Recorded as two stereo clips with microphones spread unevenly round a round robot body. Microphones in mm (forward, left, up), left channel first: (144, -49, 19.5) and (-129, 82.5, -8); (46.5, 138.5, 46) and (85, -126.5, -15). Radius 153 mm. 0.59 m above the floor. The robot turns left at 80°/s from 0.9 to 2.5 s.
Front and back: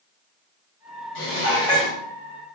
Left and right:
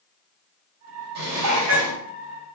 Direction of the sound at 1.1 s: 65° right.